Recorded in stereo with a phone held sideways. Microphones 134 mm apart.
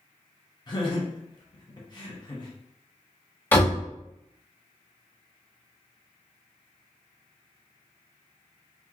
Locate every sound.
0.7 s laughter: 30° left (ahead or behind), 1.0 m
3.5 s a door slam: 15° left (ahead or behind), 1.2 m